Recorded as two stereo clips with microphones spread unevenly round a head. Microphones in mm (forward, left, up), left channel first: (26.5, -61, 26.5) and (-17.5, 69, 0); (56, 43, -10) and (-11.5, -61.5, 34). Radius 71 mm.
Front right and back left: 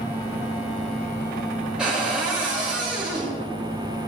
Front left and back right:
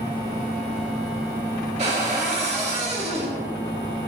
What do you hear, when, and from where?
1.8 s a cupboard door: 165° right, 2.5 m